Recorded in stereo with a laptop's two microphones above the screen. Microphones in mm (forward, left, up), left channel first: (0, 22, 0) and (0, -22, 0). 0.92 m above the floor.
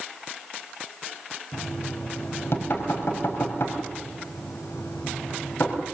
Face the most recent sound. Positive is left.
turn(degrees=65)  # may be behind; listen again after turning